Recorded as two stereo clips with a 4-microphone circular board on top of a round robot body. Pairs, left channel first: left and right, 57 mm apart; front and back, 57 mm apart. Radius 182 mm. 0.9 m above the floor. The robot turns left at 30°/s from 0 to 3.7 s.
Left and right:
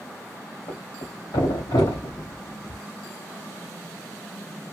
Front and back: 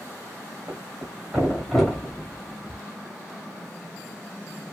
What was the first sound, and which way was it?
A thud, 120° left.